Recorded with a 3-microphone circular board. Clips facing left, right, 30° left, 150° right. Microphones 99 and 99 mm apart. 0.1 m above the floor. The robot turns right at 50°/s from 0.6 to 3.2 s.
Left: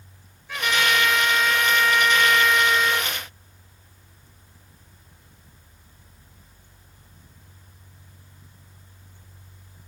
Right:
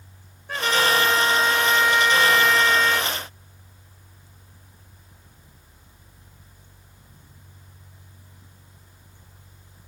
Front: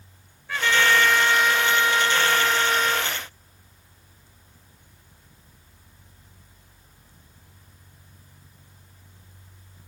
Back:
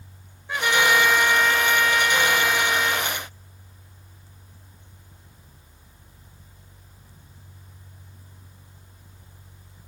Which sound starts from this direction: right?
A trumpet, at 0.5 s.